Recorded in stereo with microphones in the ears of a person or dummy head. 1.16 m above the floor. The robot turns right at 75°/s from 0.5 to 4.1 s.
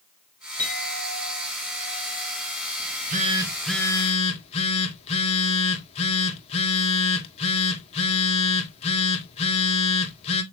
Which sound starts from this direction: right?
A phone buzzing, at 2.8 s.